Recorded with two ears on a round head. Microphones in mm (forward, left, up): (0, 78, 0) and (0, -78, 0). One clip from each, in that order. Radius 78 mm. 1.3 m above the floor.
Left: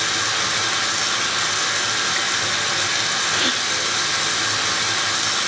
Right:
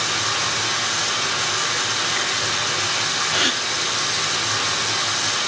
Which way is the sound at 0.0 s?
45° left (ahead or behind).